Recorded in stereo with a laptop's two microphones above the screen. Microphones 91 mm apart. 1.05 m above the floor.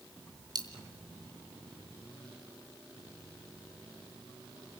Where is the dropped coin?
50° right (ahead or behind), 2.5 m.